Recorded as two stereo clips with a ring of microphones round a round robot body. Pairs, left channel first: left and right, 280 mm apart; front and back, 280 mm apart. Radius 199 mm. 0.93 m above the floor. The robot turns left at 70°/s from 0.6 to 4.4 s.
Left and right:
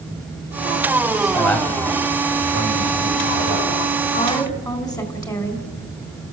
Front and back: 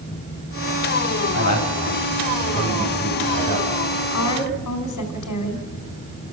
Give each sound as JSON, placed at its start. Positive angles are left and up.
{"t": 1.3, "sound": "a man speaking", "azimuth_deg": 15, "distance_m": 6.5}
{"t": 4.1, "sound": "a woman speaking", "azimuth_deg": 30, "distance_m": 4.0}